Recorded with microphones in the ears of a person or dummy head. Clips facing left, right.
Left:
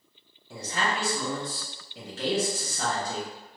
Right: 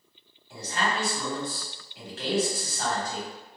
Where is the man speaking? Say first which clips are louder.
Even; 85° left, 1.0 m.